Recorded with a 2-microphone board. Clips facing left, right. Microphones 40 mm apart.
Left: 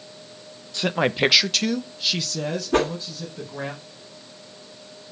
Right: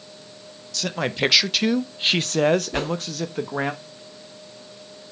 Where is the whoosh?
70° left (ahead or behind), 2.5 m.